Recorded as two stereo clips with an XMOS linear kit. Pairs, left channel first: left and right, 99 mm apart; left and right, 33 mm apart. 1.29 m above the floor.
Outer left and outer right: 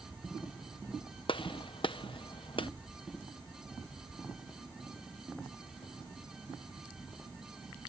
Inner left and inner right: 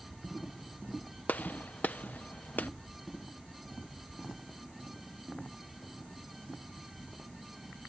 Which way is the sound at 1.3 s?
60° left (ahead or behind).